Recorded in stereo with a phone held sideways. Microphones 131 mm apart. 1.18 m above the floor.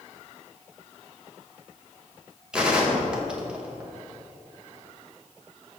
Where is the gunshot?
5° right (ahead or behind), 1.0 m.